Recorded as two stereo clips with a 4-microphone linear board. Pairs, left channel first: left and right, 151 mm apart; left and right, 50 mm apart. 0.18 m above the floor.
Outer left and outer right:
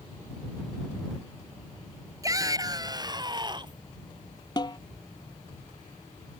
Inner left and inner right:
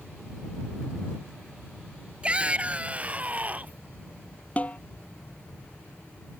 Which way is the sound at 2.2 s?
25° right (ahead or behind).